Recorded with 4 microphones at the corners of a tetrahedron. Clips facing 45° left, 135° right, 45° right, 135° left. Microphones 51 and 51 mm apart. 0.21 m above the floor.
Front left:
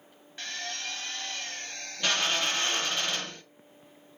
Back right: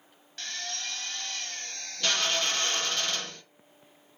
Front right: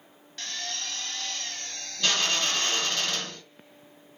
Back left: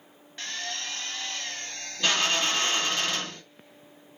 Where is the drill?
95° left, 0.6 m.